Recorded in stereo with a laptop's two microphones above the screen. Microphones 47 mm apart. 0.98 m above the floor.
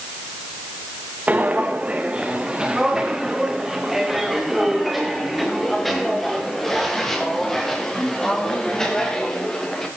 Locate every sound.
1.3 s footsteps: 30° right (ahead or behind), 3.5 m; by 9.9 s 15° left (ahead or behind), 8 m